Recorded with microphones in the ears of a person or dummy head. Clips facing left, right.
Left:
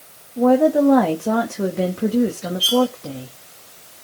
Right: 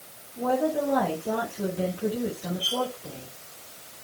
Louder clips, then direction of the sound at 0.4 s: Left 11 dB; 80° left.